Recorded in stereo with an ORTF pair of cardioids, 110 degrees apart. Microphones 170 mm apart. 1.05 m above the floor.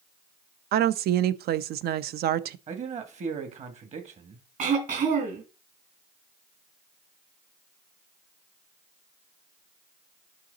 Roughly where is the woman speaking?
Ahead right.